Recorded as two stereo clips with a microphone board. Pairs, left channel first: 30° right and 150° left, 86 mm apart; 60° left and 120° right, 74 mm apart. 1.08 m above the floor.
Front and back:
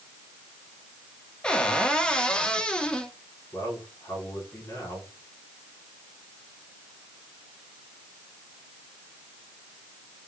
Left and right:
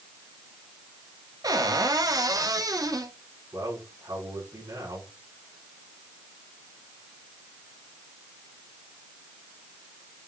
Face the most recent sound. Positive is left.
turn(degrees=-85)